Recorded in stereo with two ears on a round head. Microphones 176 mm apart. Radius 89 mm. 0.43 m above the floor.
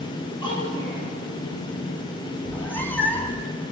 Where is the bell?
I don't hear a bell.